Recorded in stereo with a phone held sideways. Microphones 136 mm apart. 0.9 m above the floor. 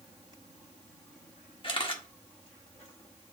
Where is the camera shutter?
40° left (ahead or behind), 1.5 m.